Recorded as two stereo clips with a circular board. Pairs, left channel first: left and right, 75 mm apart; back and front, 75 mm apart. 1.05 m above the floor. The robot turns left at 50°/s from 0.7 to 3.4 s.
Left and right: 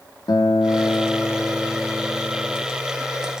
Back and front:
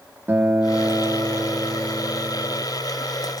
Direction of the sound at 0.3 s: 60° left.